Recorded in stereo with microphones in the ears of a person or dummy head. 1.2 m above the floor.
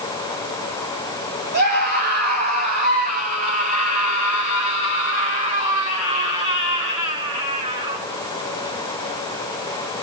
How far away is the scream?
About 8 m.